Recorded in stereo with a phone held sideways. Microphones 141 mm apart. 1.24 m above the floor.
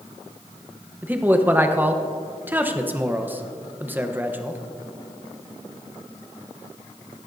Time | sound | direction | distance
1.0 | a man speaking | 15° right (ahead or behind) | 0.8 m